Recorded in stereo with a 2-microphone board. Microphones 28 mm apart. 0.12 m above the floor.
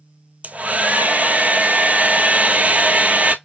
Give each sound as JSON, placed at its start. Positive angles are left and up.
{"t": 0.4, "sound": "a hair dryer", "side_deg": -55, "distance_m": 0.5}